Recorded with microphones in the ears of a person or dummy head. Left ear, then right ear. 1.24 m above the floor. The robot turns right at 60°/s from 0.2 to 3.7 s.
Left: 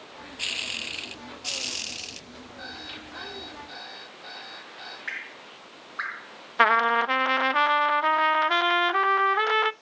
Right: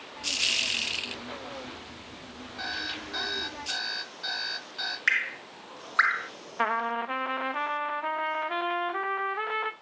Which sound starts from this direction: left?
A trumpet, at 6.6 s.